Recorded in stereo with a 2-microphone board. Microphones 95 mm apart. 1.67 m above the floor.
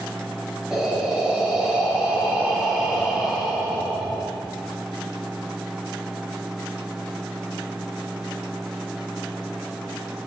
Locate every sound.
0.7 s breathing: 5° right (ahead or behind), 1.3 m